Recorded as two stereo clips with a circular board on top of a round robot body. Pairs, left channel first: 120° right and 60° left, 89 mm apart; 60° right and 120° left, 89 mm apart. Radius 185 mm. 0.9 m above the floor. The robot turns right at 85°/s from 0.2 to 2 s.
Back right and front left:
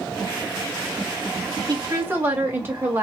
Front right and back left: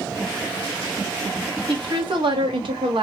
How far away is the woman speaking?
About 1.8 m.